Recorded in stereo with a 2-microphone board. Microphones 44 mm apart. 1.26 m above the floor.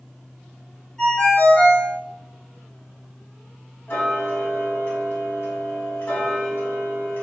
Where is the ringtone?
15° left (ahead or behind), 1.4 m.